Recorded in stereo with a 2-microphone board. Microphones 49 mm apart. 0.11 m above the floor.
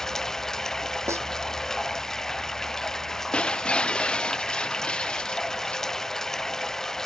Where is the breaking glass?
20° left (ahead or behind).